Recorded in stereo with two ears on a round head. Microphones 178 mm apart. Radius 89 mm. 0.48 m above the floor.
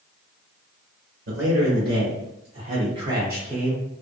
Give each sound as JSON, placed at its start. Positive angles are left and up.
{"t": 1.3, "sound": "a man speaking", "side_deg": -60, "distance_m": 1.3}